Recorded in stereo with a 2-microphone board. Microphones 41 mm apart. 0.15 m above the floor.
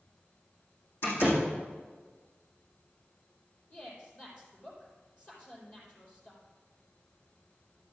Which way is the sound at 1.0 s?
65° left (ahead or behind).